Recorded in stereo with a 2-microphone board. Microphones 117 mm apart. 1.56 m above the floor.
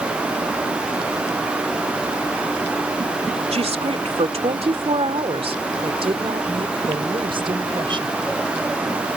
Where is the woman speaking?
65° right (ahead or behind); by 8.2 s 45° right (ahead or behind).